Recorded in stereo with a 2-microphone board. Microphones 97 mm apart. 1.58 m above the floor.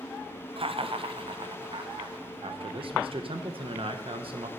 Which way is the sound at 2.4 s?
65° right (ahead or behind).